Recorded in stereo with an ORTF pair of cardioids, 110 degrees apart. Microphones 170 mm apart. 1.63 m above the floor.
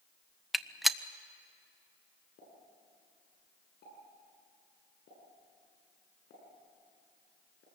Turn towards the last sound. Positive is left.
turn(degrees=65)